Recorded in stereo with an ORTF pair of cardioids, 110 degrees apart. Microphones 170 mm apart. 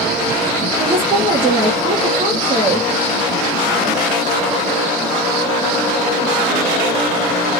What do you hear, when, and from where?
0.8 s a woman speaking: 30° right, 1.3 m